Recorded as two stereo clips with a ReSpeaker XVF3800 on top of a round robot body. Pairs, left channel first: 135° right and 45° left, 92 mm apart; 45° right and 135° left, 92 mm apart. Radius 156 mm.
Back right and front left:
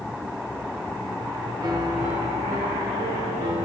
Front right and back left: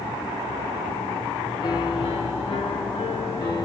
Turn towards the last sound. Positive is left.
turn(degrees=-5)